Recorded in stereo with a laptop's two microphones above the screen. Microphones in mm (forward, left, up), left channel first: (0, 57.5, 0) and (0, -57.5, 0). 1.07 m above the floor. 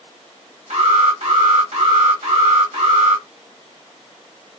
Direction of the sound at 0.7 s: 70° right (ahead or behind).